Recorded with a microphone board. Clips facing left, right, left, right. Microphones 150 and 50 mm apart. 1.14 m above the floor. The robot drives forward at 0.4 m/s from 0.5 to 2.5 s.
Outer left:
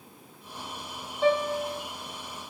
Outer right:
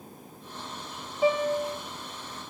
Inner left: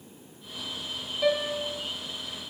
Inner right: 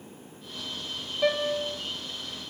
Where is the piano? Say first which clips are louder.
Even, even; 5° right (ahead or behind), 0.7 m.